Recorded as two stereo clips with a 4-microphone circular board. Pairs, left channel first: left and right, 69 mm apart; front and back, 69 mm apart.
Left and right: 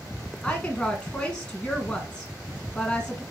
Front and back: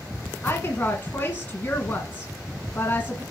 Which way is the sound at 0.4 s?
25° left.